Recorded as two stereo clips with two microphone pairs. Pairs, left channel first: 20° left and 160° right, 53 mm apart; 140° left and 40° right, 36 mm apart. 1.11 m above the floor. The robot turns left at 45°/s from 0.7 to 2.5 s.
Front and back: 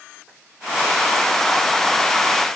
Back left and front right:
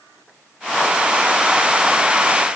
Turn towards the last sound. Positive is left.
No sound to turn to.